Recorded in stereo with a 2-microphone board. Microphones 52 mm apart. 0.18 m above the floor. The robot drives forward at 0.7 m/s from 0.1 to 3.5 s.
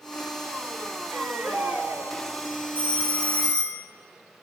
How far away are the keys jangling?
I don't hear keys jangling.